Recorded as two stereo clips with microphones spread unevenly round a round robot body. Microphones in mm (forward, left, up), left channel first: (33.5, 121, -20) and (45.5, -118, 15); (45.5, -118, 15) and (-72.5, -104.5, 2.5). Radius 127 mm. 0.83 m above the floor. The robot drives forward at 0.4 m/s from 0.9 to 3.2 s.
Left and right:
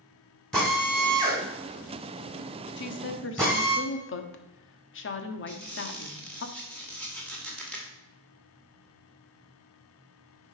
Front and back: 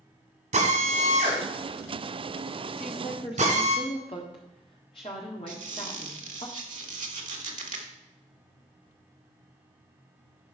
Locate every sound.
0.5 s a drill: straight behind, 3 m
2.8 s a woman speaking: 55° left, 1.4 m; by 6.5 s 60° left, 1.3 m
5.5 s a squeak: straight behind, 1.6 m